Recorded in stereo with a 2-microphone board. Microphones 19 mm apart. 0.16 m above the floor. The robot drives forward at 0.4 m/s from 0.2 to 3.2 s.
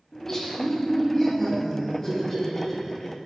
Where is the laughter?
20° left (ahead or behind), 1.2 m; by 3.2 s 15° left (ahead or behind), 1.5 m.